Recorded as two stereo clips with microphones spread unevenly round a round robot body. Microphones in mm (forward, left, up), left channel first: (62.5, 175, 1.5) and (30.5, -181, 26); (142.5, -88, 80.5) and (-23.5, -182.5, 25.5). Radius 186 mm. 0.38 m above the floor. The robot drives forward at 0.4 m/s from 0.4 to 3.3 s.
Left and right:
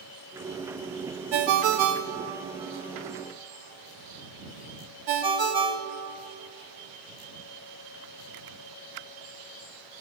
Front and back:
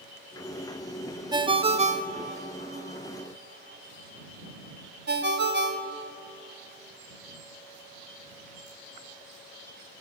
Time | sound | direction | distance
1.3 | a ringtone | 85° right | 0.9 m